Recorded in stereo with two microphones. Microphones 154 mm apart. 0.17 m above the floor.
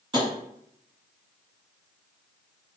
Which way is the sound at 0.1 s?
30° right (ahead or behind).